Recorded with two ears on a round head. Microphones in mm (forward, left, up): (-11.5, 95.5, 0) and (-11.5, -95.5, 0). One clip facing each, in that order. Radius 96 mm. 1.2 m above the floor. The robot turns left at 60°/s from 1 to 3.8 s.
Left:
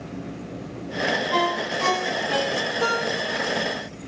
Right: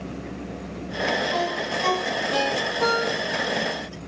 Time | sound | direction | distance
1.3 | a ringtone | 60° left (ahead or behind) | 4.5 m